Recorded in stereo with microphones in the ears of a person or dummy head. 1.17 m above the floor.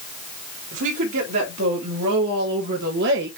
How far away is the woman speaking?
About 2.5 m.